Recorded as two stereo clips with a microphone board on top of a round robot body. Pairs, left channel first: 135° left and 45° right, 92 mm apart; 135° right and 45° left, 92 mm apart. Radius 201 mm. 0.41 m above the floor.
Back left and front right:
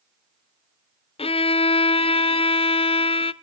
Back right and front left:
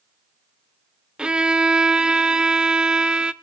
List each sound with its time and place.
1.2 s a violin: 125° left, 0.5 m